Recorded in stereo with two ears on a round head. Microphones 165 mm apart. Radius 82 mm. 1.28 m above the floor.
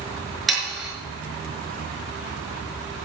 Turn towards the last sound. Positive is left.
turn(degrees=0)  # may be behind; listen again after turning